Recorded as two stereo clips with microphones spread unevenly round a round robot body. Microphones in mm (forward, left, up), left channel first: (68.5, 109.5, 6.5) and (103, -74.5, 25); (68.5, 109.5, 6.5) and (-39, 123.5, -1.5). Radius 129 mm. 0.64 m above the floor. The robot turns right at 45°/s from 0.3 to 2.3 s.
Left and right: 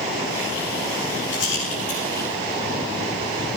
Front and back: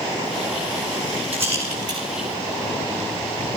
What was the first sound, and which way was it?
A rattle, 145° left.